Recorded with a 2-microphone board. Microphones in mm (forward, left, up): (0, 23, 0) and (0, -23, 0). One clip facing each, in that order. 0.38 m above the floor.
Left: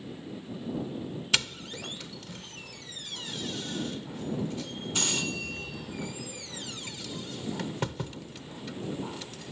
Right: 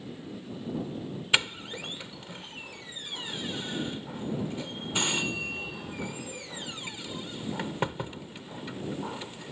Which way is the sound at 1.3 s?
20° right (ahead or behind).